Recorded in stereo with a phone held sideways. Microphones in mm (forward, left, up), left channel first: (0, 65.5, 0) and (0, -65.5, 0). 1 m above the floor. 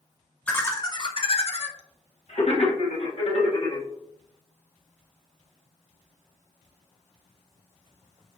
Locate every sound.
0.5 s laughter: 10° left (ahead or behind), 0.5 m; by 3.9 s 55° left (ahead or behind), 1.8 m